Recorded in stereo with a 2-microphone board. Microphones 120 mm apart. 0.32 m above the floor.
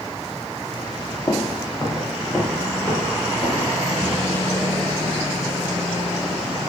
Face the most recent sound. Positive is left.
turn(degrees=-5)  # may be behind; listen again after turning